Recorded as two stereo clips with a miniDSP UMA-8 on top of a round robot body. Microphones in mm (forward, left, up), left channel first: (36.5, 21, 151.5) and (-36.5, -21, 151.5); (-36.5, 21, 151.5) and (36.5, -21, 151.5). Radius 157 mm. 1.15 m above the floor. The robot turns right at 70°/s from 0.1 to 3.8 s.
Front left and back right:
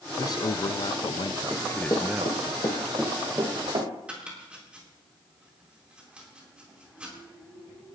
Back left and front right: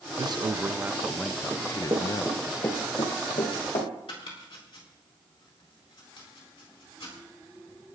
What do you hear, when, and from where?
0.2 s a man speaking: 10° right, 0.6 m; by 2.4 s 145° left, 0.6 m
1.5 s running footsteps: 90° right, 1.2 m; by 3.9 s straight behind, 3 m
4.1 s chopping: 135° left, 4 m